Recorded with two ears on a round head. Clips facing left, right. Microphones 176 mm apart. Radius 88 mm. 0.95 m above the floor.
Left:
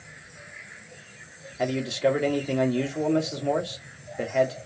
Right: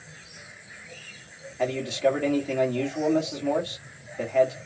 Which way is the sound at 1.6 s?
10° left (ahead or behind).